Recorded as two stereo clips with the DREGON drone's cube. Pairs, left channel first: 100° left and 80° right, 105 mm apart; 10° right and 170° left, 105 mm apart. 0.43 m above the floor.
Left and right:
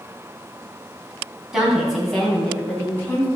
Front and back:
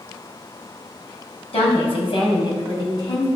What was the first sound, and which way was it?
A woman speaking, 5° left.